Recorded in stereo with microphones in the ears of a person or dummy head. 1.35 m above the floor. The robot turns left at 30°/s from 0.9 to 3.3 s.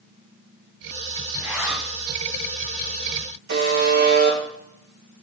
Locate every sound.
1.3 s a zipper: 20° right (ahead or behind), 6 m; by 1.9 s centre (ahead or behind), 6 m
3.5 s a buzzer: 55° right (ahead or behind), 3.5 m